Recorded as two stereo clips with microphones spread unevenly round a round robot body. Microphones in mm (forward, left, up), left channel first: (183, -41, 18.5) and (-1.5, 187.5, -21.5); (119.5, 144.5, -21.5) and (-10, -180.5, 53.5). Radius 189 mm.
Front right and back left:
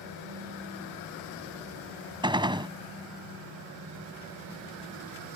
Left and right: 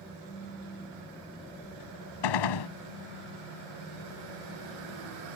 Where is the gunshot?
50° left.